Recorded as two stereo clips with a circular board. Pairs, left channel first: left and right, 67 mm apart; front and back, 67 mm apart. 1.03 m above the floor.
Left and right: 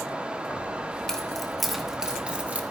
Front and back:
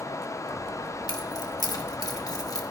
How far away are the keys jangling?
About 1.6 m.